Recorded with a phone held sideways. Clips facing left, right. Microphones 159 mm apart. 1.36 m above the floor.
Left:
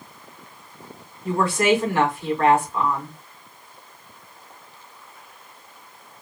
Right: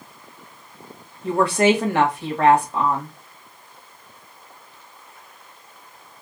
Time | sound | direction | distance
1.2 | a woman speaking | 75° right (ahead or behind) | 2 m